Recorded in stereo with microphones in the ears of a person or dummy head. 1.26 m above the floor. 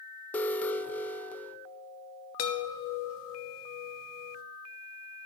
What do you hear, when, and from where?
0.3 s an alarm: 10° left (ahead or behind), 0.6 m
2.4 s a chime: 65° left (ahead or behind), 1.2 m